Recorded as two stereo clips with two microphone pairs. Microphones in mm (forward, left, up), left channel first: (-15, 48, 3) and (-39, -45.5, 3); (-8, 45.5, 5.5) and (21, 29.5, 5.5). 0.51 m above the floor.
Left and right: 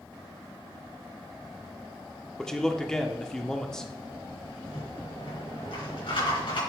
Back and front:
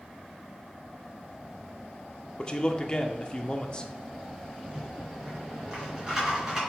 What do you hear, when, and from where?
2.4 s a man speaking: 155° left, 0.8 m
4.6 s a rattle: 50° left, 3.5 m